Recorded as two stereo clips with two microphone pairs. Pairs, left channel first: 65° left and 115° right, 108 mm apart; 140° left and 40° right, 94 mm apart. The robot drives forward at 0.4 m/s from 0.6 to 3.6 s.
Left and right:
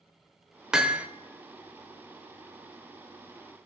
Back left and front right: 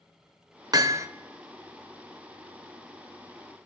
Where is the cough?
No cough in this recording.